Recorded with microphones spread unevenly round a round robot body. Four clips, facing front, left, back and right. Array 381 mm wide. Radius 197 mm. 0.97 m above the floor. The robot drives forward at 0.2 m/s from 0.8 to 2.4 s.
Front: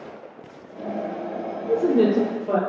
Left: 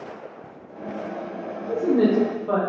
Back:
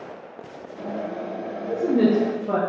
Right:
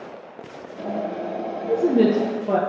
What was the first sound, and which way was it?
A woman speaking, 70° right.